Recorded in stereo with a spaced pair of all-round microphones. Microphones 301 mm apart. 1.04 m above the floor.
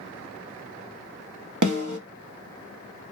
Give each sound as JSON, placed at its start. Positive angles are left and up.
{"t": 1.6, "sound": "a snare drum", "side_deg": -80, "distance_m": 0.8}